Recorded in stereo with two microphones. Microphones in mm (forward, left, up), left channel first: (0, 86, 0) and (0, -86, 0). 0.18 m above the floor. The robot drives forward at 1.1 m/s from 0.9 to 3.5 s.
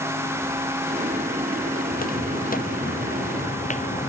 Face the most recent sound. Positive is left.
turn(degrees=45)  # may be behind; listen again after turning